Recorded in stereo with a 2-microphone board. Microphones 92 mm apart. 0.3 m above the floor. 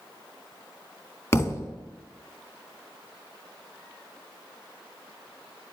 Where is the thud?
35° left (ahead or behind), 0.7 m.